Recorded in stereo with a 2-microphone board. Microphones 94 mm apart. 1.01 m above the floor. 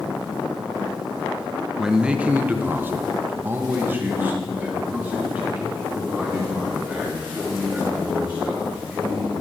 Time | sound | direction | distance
1.8 | a man speaking | 5° right (ahead or behind) | 0.5 m